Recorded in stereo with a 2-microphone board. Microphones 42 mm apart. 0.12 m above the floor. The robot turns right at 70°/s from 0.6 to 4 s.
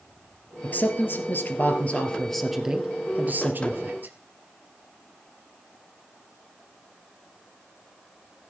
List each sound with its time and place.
0.6 s a man speaking: 50° left, 2.5 m; by 4.1 s 75° right, 2.5 m